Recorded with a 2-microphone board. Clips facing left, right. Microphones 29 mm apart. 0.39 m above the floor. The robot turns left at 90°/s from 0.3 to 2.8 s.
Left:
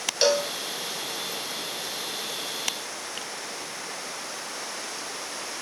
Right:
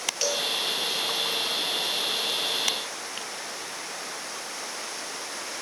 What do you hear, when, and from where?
0.2 s a cowbell: 50° left (ahead or behind), 1.7 m; by 0.5 s 65° left (ahead or behind), 1.7 m